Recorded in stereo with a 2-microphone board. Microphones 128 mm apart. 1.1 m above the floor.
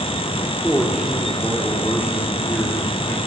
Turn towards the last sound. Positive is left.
turn(degrees=5)  # may be behind; listen again after turning